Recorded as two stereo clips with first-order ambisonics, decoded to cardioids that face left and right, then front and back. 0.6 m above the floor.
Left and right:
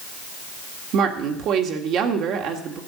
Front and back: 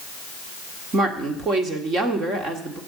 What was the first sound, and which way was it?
A woman speaking, 125° right.